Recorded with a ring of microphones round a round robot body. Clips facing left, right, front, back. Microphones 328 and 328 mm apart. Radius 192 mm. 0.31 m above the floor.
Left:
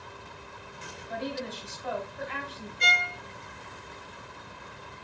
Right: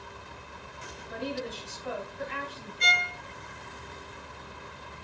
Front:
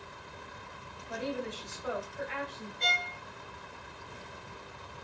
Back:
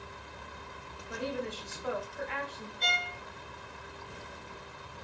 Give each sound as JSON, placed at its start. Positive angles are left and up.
{"t": 1.1, "sound": "a woman speaking", "azimuth_deg": 115, "distance_m": 3.0}
{"t": 2.8, "sound": "a violin", "azimuth_deg": 55, "distance_m": 0.8}